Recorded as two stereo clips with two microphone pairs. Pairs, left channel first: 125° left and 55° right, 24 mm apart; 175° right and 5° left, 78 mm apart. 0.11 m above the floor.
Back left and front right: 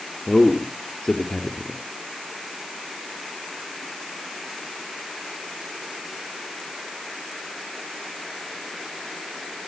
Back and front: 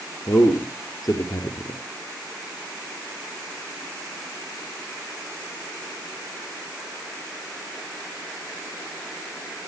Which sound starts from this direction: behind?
A man speaking, at 0.3 s.